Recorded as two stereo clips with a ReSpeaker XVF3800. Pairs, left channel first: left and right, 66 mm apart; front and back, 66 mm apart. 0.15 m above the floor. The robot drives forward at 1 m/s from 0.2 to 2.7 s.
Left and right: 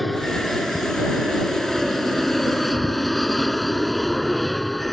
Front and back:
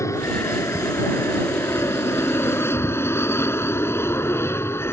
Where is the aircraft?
Straight ahead; by 4.9 s 5° left.